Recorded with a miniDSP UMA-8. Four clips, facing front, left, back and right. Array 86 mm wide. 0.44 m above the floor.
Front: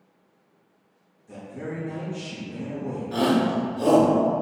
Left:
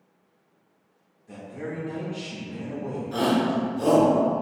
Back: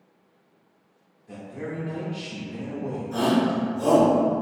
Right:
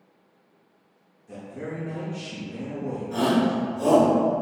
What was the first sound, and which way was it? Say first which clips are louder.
A man speaking: even, even; 160° left.